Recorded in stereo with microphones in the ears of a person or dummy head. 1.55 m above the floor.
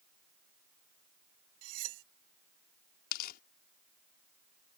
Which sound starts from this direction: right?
Cutlery clinking, at 1.6 s.